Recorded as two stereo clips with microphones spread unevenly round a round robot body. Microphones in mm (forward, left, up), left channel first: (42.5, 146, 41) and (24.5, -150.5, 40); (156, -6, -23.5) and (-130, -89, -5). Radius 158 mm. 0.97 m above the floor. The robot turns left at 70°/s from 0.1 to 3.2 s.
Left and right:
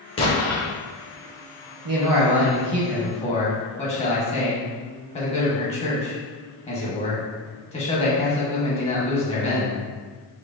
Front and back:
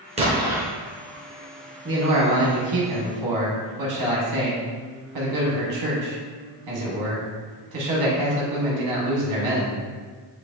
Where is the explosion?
150° left, 0.7 m; by 0.7 s 115° left, 0.7 m.